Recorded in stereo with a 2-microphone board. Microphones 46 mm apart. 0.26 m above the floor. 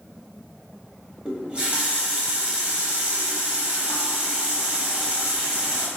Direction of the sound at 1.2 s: 25° right (ahead or behind).